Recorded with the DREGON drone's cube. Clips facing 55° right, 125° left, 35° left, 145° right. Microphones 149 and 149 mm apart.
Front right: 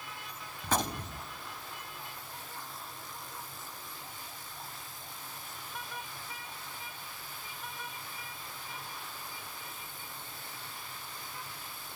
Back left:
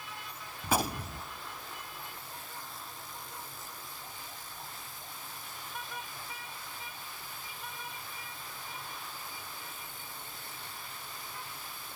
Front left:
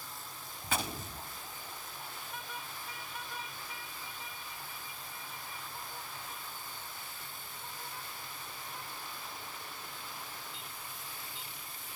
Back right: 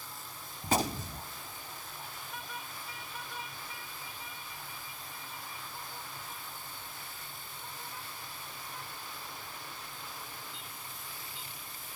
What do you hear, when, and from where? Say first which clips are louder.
0.6 s a gunshot: back left 1 dB, back right 7 dB; 160° right, 0.8 m